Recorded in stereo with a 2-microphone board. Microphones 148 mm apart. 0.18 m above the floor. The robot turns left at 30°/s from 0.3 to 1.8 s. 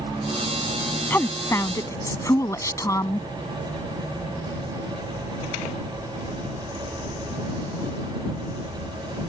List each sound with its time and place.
1.1 s a woman speaking: 15° left (ahead or behind); by 3.3 s 20° left (ahead or behind)